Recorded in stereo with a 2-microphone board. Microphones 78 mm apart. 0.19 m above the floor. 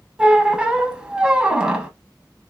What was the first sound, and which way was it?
A squeak, 15° right (ahead or behind).